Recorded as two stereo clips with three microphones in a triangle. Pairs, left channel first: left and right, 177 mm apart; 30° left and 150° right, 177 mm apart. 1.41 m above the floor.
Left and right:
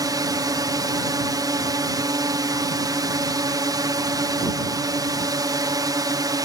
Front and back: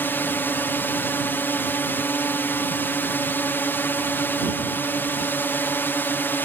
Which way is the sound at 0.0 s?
40° right.